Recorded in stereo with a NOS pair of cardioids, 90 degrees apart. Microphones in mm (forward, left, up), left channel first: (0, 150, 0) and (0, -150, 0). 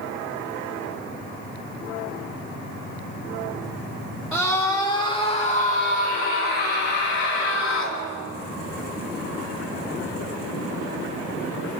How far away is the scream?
About 1.6 m.